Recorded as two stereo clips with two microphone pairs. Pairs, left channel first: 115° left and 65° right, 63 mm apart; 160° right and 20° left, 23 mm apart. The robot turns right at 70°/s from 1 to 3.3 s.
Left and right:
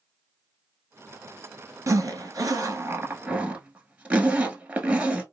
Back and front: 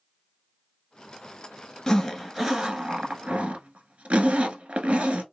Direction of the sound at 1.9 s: 95° right.